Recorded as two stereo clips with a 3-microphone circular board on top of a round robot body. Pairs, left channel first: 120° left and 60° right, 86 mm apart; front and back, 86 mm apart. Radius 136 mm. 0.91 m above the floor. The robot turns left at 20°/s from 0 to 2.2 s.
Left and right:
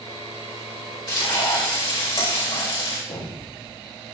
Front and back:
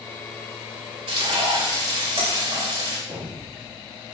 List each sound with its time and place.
1.1 s frying: 165° left, 4.5 m; by 3.0 s 145° left, 4.5 m
3.1 s an explosion: 125° left, 5 m